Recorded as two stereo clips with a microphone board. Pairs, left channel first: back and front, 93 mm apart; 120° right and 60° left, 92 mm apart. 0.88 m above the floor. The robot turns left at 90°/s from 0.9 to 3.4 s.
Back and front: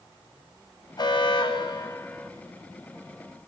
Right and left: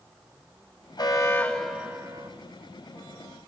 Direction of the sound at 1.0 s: 155° right.